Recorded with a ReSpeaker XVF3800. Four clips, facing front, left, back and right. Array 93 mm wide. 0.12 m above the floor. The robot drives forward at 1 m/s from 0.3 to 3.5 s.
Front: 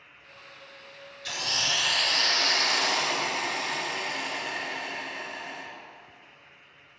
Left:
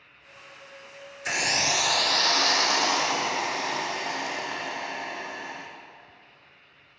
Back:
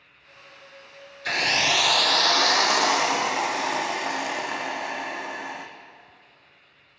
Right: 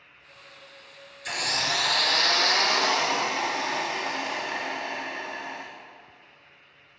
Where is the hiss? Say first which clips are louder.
Left 2 dB, back 8 dB; 150° left, 0.5 m; by 5.7 s 175° left, 2.5 m.